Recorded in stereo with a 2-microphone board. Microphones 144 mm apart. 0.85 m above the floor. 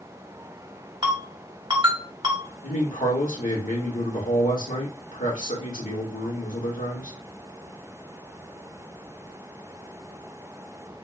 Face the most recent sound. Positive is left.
turn(degrees=65)  # may be behind; listen again after turning